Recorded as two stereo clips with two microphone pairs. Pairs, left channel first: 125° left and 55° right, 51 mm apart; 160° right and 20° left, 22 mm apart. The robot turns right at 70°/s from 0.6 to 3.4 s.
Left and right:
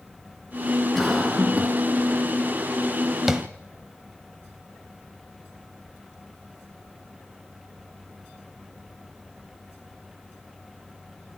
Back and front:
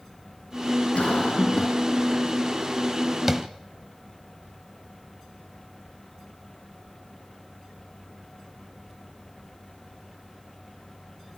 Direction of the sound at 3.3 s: 10° left.